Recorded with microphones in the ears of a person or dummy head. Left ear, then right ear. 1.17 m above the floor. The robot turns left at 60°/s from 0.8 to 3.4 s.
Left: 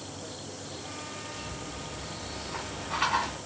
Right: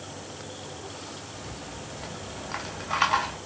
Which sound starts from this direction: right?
A rattle, at 1.3 s.